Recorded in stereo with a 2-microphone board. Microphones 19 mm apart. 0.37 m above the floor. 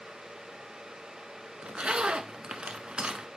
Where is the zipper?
65° right (ahead or behind), 0.5 m.